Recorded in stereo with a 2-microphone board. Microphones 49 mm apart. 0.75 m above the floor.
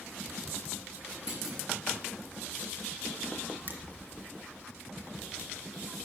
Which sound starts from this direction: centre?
A clunk, at 1.3 s.